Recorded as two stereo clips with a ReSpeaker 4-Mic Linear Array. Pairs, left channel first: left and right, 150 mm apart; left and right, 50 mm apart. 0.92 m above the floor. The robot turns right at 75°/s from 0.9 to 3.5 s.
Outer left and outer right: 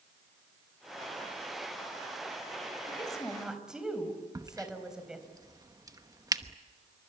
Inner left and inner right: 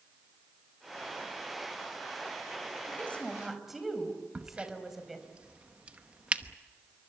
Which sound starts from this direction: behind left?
A woman speaking, at 2.9 s.